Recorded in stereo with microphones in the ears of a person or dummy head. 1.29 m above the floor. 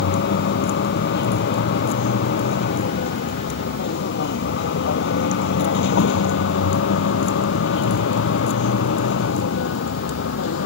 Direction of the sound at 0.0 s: 60° left (ahead or behind).